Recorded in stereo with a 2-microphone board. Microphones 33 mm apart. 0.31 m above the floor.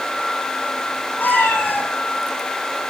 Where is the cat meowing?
85° left, 3 m.